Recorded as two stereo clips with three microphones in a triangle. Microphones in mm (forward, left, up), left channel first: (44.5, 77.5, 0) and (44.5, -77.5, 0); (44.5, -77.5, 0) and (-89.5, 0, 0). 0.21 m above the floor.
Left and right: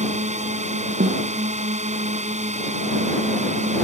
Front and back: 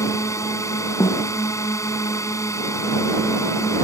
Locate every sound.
0.0 s a drone: 95° right
1.0 s a snare drum: 100° right